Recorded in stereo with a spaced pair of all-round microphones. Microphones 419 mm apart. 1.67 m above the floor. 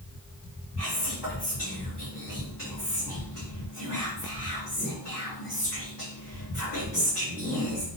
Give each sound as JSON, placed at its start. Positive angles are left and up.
{"t": 0.8, "sound": "whispering", "side_deg": 75, "distance_m": 5.0}